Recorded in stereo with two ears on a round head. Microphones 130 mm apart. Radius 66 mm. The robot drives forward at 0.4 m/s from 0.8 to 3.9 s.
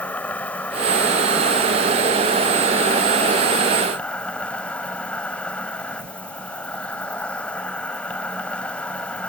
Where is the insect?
10° left (ahead or behind).